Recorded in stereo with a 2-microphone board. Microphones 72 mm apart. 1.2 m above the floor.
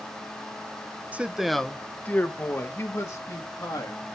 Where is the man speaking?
20° right (ahead or behind), 0.6 m; by 4.0 s 45° left (ahead or behind), 2 m.